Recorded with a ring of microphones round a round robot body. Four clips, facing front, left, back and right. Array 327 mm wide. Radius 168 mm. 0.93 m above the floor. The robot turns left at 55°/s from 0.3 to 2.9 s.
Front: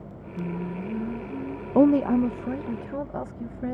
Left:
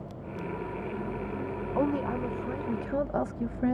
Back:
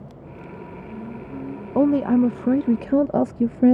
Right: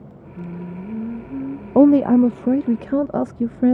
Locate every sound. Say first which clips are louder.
0.4 s singing: right 3 dB, front 7 dB; 35° right; by 1.6 s 105° right
1.8 s a woman speaking: right 17 dB, back 1 dB; 80° right; by 3.8 s 145° right